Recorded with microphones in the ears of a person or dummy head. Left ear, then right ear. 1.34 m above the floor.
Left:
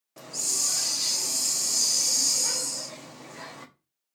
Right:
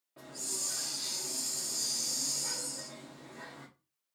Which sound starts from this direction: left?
A hiss, at 0.2 s.